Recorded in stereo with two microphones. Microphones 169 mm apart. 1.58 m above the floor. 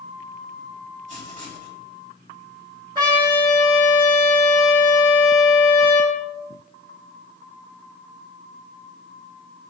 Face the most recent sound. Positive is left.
turn(degrees=-25)  # may be behind; listen again after turning